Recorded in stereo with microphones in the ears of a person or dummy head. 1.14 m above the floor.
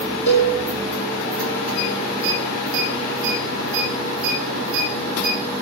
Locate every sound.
0.3 s a cowbell: 65° left (ahead or behind), 4.5 m